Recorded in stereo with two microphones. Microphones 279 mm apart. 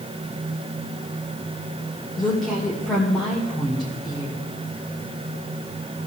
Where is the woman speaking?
Centre (ahead or behind), 2 m.